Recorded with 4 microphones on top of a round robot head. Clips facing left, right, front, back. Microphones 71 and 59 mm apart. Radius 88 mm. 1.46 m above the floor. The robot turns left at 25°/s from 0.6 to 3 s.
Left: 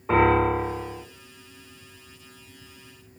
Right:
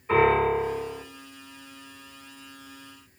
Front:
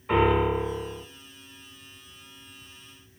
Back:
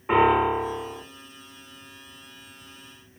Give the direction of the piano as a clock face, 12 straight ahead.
8 o'clock.